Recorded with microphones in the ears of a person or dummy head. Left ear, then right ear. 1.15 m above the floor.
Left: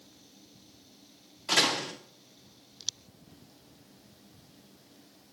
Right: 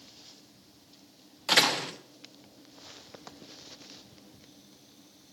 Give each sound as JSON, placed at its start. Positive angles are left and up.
{"t": 1.5, "sound": "a door slam", "side_deg": -25, "distance_m": 0.5}